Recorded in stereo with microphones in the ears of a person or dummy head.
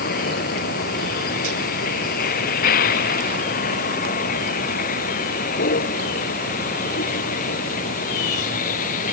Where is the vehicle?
50° left (ahead or behind); by 9.1 s 45° left (ahead or behind).